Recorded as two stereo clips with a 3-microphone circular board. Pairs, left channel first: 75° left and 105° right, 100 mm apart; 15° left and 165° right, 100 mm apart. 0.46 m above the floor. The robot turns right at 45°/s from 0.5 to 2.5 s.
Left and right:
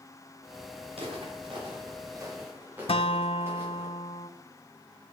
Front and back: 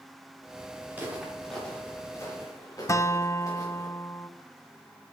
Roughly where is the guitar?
Left.